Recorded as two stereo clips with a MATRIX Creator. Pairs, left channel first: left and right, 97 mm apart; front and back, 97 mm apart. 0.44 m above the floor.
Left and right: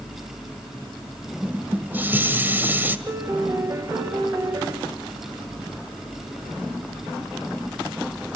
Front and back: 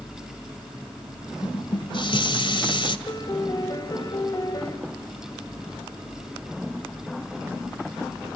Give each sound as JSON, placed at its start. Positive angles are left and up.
{"t": 1.4, "sound": "dishes clattering", "azimuth_deg": -20, "distance_m": 1.6}
{"t": 3.1, "sound": "a piano", "azimuth_deg": -45, "distance_m": 2.5}